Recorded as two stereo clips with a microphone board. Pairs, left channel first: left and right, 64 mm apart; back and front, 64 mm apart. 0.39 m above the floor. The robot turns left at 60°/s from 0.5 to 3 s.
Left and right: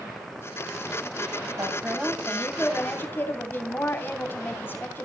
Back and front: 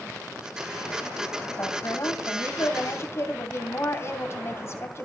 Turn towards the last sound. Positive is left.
turn(degrees=140)